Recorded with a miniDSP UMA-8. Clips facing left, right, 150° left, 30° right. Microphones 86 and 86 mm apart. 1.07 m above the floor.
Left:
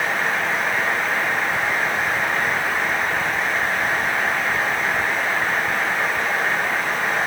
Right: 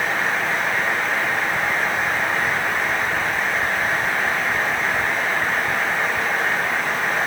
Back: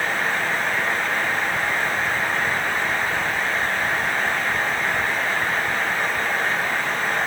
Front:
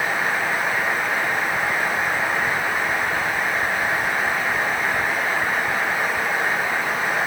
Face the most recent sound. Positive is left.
No sound to turn to.